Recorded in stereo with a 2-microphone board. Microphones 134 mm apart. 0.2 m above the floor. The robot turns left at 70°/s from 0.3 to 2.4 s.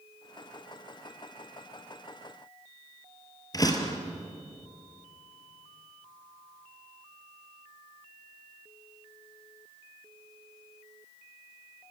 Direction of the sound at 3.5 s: 30° left (ahead or behind).